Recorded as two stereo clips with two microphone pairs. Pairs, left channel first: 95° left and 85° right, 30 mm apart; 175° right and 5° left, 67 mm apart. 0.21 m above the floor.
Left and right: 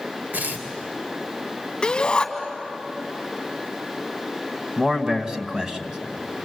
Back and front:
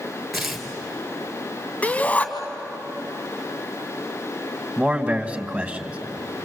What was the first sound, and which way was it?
Tearing paper, 80° right.